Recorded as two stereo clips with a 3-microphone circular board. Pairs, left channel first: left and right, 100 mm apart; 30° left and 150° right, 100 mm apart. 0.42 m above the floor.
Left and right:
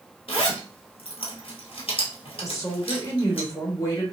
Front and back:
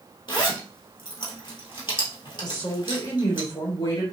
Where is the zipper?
65° left, 1.5 m.